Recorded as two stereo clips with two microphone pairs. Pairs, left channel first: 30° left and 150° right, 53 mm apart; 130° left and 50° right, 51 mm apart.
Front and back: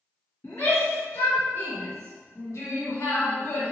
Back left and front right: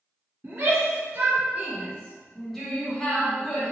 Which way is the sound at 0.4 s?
5° right.